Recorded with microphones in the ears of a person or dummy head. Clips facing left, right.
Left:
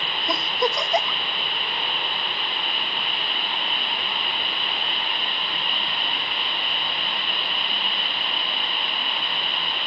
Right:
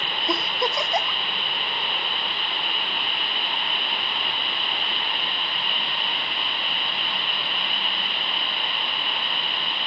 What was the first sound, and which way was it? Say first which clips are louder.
A giggle: left 2 dB; centre (ahead or behind).